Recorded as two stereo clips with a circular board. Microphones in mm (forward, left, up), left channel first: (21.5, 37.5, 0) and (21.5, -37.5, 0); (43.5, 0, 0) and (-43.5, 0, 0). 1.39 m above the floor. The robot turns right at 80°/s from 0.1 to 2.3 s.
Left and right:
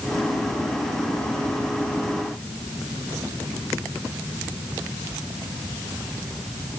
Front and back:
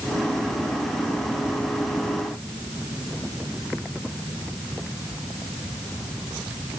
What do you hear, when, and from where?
Only background noise.